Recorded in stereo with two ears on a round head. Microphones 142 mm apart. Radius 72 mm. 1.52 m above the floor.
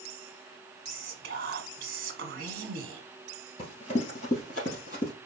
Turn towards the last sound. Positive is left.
turn(degrees=50)  # may be behind; listen again after turning